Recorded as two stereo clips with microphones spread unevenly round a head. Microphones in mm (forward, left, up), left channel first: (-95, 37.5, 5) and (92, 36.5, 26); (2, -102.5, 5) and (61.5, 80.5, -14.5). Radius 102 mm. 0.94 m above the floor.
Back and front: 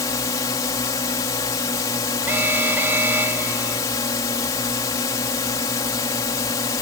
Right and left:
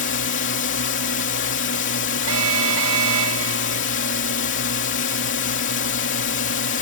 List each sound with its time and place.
0.0 s a drone: 115° right
2.3 s an alarm: 80° left